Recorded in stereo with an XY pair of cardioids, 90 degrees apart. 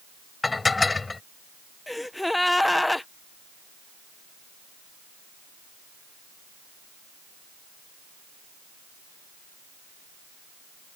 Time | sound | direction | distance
0.4 | dishes clattering | 25° left | ?
1.9 | a gasp | 10° left | ?